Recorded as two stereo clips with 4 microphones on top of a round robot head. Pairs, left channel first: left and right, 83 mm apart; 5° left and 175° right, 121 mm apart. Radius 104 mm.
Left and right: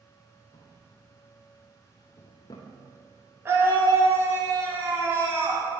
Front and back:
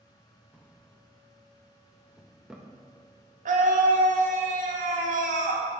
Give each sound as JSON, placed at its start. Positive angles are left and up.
{"t": 0.5, "sound": "a drawer", "azimuth_deg": 100, "distance_m": 0.7}
{"t": 3.5, "sound": "a scream", "azimuth_deg": -155, "distance_m": 1.6}